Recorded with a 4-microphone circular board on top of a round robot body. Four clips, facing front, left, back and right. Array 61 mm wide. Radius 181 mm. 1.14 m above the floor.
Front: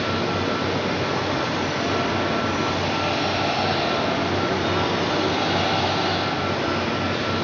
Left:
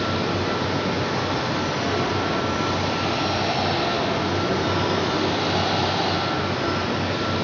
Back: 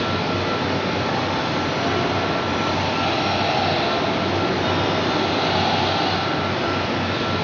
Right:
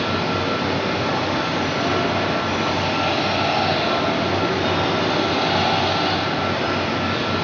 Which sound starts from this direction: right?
Running water, at 0.0 s.